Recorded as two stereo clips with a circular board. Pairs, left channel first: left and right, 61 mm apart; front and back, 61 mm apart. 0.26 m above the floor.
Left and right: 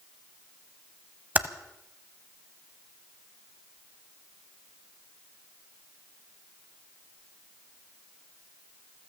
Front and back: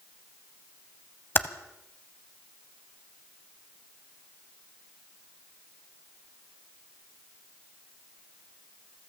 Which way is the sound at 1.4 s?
40° right.